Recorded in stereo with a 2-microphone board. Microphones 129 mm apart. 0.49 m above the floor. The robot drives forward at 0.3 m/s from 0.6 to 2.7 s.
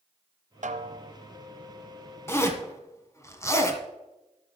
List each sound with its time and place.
0.6 s a snare drum: 80° right, 0.6 m; by 1.1 s 65° right (ahead or behind), 0.7 m
2.3 s a zipper: 20° left (ahead or behind), 1.3 m; by 3.8 s 25° left (ahead or behind), 1.2 m